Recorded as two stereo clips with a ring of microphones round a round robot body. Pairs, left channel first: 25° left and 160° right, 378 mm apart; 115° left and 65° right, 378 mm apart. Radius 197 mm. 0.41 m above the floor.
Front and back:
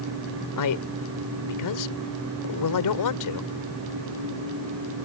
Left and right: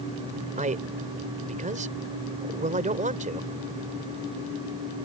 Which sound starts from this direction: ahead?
A man speaking, at 0.6 s.